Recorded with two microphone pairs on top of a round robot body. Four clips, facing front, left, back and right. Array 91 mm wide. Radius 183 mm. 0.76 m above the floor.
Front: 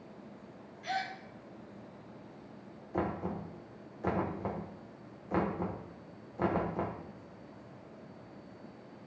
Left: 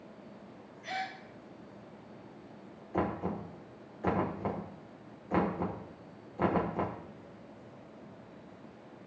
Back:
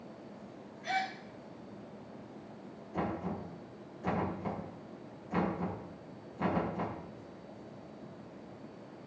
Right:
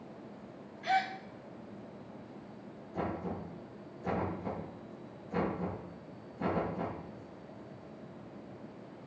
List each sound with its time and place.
0.8 s a gasp: 95° right, 0.8 m
2.9 s knocking: 55° left, 1.6 m